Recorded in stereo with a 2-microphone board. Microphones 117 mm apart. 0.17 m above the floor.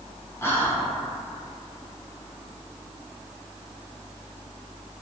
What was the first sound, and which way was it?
Whispering, 20° left (ahead or behind).